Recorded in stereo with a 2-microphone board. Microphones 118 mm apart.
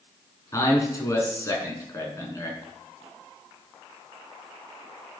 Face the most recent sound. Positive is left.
turn(degrees=25)  # may be behind; listen again after turning